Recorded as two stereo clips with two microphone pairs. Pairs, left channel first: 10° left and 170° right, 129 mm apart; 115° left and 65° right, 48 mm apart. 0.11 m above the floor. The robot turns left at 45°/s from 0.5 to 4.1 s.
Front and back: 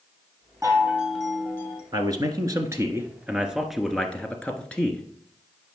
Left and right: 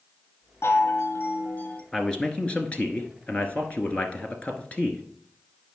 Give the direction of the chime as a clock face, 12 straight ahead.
8 o'clock.